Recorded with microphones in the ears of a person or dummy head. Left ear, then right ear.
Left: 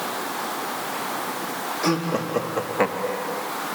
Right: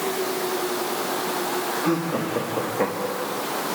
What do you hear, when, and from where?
1.8 s laughter: 80° left, 3.5 m; by 3.4 s 60° left (ahead or behind), 2.5 m